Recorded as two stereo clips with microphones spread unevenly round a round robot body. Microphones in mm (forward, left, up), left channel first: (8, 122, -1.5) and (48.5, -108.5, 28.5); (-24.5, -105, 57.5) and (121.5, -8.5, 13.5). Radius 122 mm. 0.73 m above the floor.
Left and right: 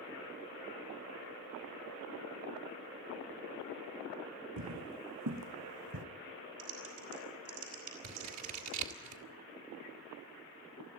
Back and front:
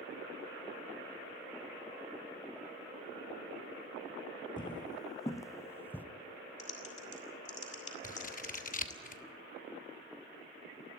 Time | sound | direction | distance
4.6 | footsteps | 90° right | 2.5 m
6.6 | typing on a keyboard | 95° right | 5 m
8.0 | scissors | 100° right | 1.9 m